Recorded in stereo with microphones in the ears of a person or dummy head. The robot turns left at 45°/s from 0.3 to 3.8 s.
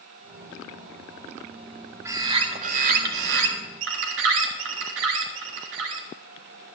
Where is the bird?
15° right, 1.5 m; by 6.1 s 95° right, 1.5 m.